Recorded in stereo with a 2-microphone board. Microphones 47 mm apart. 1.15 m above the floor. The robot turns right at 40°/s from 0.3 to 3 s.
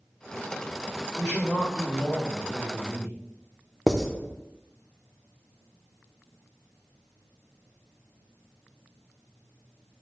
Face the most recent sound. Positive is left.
turn(degrees=10)  # may be behind; listen again after turning